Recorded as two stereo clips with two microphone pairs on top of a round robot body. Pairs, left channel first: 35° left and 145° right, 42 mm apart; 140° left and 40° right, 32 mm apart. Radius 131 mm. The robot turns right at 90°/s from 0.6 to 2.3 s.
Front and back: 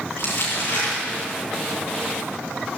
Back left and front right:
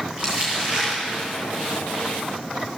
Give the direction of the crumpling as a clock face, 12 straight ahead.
12 o'clock.